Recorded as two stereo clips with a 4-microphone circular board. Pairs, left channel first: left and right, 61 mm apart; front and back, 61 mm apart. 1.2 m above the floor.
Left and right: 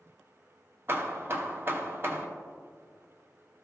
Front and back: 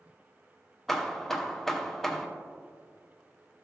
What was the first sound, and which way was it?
Hammering, 80° right.